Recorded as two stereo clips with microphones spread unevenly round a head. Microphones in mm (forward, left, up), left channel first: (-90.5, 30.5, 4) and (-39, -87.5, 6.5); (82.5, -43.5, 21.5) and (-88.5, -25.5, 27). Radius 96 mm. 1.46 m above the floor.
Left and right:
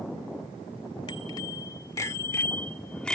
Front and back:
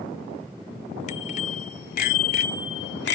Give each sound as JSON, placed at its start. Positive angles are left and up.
{"t": 1.1, "sound": "a bicycle bell", "azimuth_deg": 45}